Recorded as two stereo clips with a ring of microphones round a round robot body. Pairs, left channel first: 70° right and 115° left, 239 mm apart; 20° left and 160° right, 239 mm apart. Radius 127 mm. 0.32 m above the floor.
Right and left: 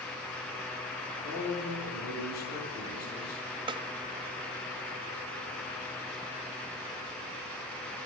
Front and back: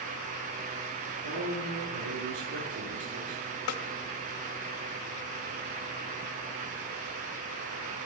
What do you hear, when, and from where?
1.2 s a man speaking: 120° right, 5 m
3.7 s a snare drum: 40° left, 0.6 m